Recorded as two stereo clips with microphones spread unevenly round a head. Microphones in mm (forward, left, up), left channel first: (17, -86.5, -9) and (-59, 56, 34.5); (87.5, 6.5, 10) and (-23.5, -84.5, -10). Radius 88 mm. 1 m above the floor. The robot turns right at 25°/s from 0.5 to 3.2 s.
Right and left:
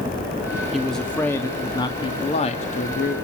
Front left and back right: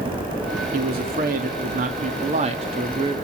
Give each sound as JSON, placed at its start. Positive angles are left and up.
{"t": 0.7, "sound": "a man speaking", "azimuth_deg": -150, "distance_m": 2.0}